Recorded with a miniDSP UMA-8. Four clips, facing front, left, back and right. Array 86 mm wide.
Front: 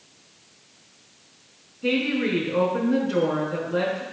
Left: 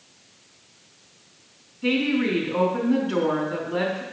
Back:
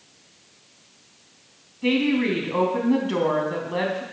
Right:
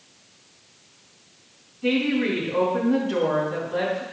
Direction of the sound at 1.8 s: 170° left.